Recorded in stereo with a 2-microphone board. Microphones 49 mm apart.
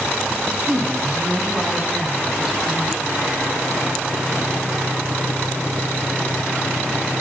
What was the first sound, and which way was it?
A woman speaking, 35° right (ahead or behind).